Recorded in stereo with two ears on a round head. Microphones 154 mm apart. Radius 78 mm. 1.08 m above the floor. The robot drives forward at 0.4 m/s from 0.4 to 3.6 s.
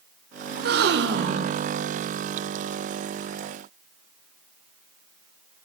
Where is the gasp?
55° right (ahead or behind), 0.6 m; by 1.6 s 60° right (ahead or behind), 0.6 m.